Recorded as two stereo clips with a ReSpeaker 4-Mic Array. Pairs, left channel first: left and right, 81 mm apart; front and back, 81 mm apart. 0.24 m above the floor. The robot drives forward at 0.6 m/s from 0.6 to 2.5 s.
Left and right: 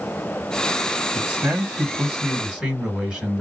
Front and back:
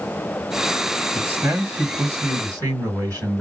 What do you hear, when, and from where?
1.1 s a man speaking: 140° right, 1.4 m; by 3.4 s 165° right, 1.8 m